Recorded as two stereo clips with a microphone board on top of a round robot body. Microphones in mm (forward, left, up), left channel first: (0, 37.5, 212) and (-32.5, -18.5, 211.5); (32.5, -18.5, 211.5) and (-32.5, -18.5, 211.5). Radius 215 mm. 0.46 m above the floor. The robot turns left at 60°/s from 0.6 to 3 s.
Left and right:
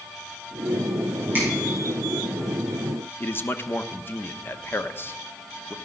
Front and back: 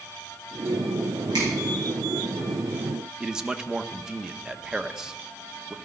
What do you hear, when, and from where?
1.3 s a finger snap: straight behind, 8.5 m; by 1.5 s 170° left, 8.5 m
3.2 s a man speaking: 100° left, 1.3 m